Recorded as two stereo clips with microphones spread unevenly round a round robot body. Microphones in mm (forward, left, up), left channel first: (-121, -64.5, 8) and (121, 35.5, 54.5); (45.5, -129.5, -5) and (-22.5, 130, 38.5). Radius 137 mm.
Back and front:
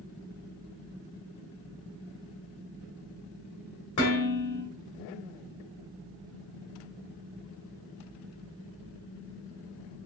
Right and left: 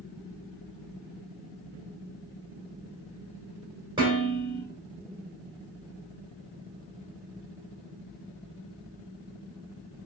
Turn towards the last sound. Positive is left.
turn(degrees=180)